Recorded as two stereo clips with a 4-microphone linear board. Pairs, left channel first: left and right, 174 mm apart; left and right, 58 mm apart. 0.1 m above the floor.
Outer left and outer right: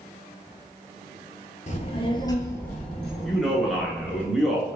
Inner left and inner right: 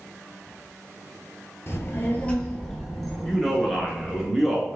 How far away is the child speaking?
About 1.1 m.